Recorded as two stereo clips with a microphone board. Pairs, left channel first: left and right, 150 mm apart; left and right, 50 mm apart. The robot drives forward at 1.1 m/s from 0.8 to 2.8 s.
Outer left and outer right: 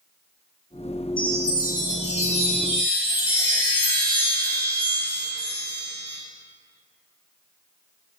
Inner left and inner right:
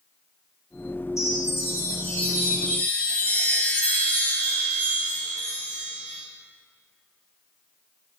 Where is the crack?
I don't hear a crack.